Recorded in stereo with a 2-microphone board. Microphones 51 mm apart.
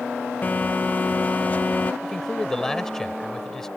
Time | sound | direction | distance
0.4 | a phone buzzing | 35° left (ahead or behind) | ?
2.0 | a man speaking | 10° left (ahead or behind) | ?